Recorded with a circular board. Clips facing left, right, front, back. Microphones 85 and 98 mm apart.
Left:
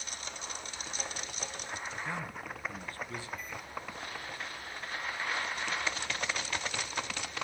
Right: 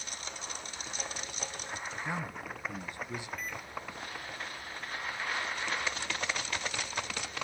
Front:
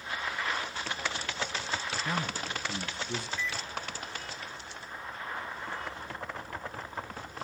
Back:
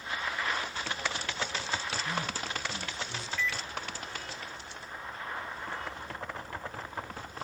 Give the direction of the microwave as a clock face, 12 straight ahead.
2 o'clock.